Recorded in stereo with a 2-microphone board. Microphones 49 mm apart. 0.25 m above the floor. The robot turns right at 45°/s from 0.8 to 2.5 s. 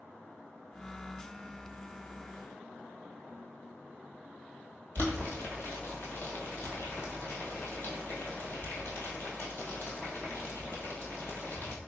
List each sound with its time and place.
5.0 s boiling: 50° left (ahead or behind), 1.5 m